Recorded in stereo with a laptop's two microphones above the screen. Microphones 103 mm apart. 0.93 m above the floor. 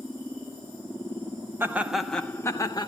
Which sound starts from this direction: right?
Laughter, at 1.6 s.